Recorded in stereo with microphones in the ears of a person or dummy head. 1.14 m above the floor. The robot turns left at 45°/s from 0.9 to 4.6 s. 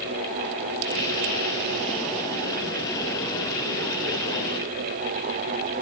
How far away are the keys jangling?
No keys jangling in this recording.